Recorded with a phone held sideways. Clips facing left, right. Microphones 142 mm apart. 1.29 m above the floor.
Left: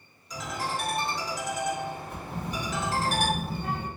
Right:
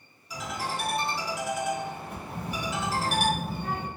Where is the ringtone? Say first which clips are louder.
Left 1 dB; 5° right (ahead or behind), 1.6 m.